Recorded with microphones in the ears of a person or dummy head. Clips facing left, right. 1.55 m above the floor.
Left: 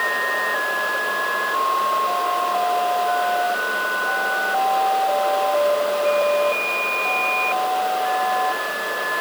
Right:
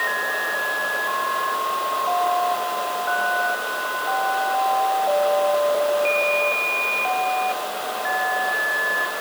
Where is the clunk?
I don't hear a clunk.